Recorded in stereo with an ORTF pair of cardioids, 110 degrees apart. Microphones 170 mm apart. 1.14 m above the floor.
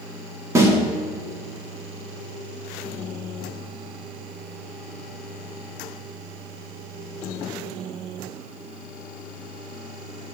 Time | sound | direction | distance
0.6 | a snare drum | 15° right | 1.8 m